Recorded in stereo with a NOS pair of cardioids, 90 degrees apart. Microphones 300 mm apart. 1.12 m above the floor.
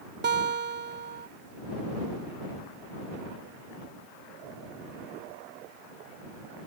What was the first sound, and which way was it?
A guitar, 35° right.